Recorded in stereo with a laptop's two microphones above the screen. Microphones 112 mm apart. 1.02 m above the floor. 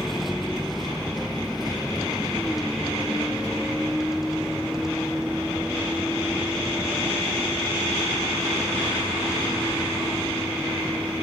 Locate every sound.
0.0 s a vehicle: centre (ahead or behind); by 11.2 s 5° right (ahead or behind)